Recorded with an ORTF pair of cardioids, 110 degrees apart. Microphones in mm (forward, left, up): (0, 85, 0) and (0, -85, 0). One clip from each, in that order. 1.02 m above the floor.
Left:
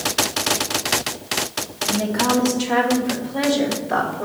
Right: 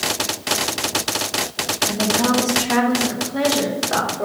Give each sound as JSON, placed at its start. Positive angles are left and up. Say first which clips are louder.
{"t": 1.9, "sound": "a woman speaking", "louder": "left 2 dB", "azimuth_deg": -25, "distance_m": 1.4}